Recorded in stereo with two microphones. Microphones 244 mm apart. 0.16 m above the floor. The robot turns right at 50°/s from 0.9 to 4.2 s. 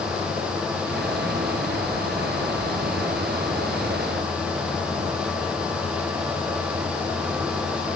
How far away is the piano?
No piano in this recording.